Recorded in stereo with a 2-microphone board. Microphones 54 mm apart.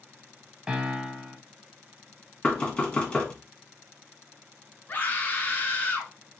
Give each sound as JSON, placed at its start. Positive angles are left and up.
{"t": 0.7, "sound": "a piano", "side_deg": -15, "distance_m": 0.9}
{"t": 2.4, "sound": "knocking", "side_deg": 20, "distance_m": 1.3}
{"t": 4.9, "sound": "a scream", "side_deg": 30, "distance_m": 1.7}